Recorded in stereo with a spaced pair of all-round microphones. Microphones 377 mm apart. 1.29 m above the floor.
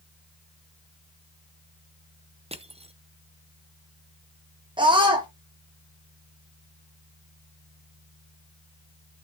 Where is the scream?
15° right (ahead or behind), 0.9 m.